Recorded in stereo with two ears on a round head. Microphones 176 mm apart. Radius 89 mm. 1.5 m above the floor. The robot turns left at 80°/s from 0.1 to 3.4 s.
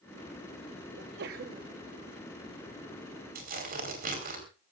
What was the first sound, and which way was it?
A sneeze, 90° right.